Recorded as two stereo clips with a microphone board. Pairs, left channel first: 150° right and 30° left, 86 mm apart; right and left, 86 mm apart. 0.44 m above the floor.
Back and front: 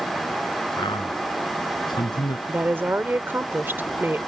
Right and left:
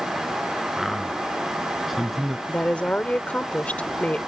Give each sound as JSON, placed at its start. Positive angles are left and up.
{"t": 0.8, "sound": "a man speaking", "azimuth_deg": 180}
{"t": 2.5, "sound": "a woman speaking", "azimuth_deg": -25}